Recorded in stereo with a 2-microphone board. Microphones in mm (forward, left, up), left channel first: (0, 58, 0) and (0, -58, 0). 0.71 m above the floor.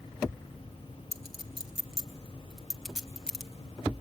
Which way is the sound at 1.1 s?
5° right (ahead or behind).